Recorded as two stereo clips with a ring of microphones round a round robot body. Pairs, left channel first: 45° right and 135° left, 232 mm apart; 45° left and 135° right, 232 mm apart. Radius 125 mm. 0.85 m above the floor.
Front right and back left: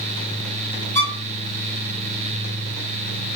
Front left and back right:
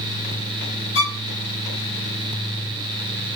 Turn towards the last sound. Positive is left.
turn(degrees=35)